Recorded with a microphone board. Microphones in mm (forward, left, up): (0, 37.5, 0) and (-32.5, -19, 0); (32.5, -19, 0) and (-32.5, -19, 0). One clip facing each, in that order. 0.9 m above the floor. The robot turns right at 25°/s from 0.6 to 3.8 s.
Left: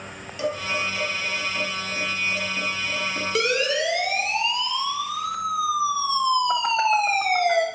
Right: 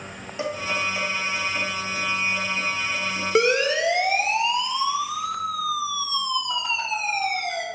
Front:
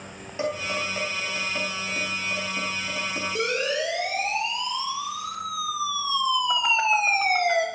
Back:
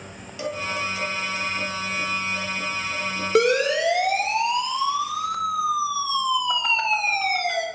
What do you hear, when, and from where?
0.4 s dishes clattering: 60° right, 4 m; by 4.3 s 20° left, 4 m
3.4 s a siren: 175° left, 3 m; by 7.7 s 60° left, 2.5 m